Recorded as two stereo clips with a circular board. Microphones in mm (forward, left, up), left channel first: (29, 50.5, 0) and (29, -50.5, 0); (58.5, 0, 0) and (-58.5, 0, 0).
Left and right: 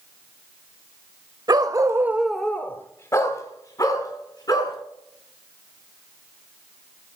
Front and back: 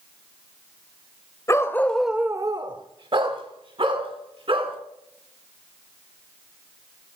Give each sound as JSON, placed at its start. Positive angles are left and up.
{"t": 1.5, "sound": "a dog barking", "azimuth_deg": -55, "distance_m": 1.1}